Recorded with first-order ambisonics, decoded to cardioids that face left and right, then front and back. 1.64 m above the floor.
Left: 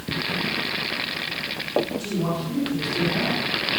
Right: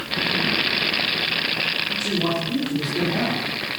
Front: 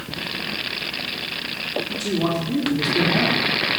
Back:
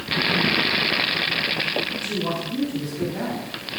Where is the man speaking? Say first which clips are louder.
Right 5 dB, front 3 dB; 10° right, 4.5 m.